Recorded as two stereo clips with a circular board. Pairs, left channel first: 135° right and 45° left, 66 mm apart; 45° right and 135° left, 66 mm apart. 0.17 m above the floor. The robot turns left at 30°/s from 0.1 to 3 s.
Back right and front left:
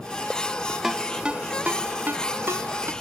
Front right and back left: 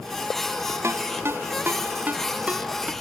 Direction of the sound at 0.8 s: 125° left.